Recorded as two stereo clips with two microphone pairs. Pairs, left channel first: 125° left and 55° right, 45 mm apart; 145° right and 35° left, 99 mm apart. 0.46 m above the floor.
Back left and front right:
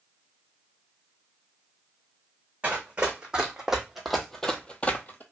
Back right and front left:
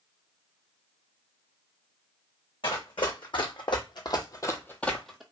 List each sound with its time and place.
2.6 s running footsteps: 120° right, 1.1 m; by 5.2 s 115° left, 0.5 m